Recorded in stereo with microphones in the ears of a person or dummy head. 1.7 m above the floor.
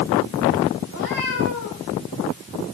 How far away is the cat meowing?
About 5 m.